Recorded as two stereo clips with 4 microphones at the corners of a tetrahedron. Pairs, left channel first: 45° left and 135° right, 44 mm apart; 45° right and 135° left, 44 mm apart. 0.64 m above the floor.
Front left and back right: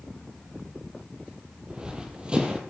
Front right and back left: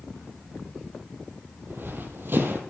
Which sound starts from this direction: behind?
Running footsteps, at 1.7 s.